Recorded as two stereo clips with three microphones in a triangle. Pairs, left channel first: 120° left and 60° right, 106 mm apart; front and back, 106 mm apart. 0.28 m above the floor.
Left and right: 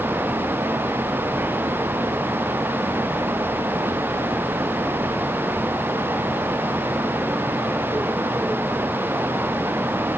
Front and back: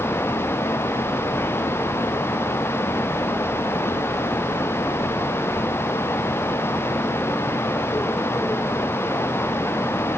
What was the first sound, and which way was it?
Only background noise.